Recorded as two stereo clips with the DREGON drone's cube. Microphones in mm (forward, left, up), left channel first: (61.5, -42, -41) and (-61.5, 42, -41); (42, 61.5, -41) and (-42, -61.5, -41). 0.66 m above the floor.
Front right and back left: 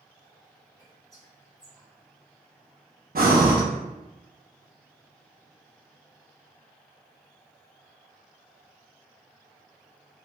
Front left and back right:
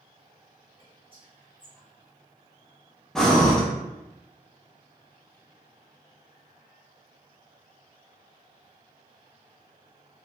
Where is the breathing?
140° left, 0.5 m.